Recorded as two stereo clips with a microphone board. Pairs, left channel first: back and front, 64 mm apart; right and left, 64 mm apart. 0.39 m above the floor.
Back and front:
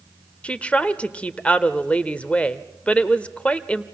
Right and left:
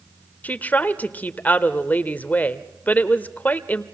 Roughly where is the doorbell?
I don't hear a doorbell.